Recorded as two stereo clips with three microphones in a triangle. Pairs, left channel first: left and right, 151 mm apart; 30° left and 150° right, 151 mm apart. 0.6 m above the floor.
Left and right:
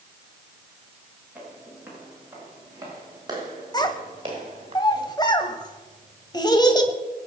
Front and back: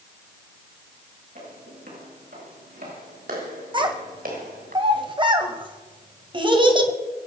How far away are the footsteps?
About 7.5 m.